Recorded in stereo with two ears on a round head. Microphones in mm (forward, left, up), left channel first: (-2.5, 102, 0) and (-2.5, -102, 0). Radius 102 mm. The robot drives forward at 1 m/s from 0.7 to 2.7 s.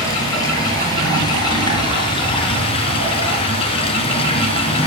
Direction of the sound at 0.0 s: 15° left (ahead or behind).